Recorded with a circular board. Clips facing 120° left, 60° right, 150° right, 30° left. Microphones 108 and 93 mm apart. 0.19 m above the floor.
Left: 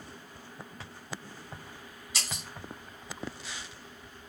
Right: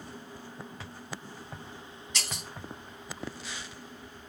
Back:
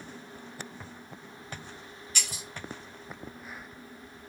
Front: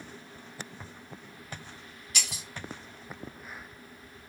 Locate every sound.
2.1 s breaking glass: 40° left, 2.5 m